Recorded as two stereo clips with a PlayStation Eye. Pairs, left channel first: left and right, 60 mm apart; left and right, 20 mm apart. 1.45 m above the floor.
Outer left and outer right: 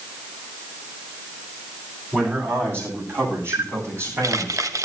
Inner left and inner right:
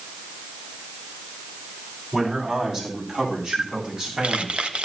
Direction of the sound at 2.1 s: 40° right (ahead or behind).